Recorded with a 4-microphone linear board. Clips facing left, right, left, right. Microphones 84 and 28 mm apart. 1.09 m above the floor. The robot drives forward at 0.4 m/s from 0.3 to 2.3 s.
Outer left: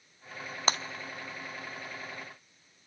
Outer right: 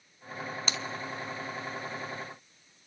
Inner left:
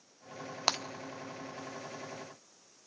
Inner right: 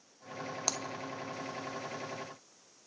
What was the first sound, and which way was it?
Breaking glass, 45° left (ahead or behind).